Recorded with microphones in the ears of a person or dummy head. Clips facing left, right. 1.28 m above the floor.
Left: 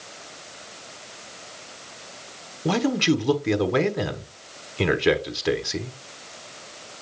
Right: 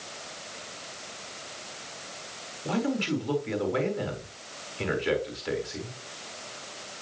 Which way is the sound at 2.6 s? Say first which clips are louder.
Left 7 dB; 65° left (ahead or behind).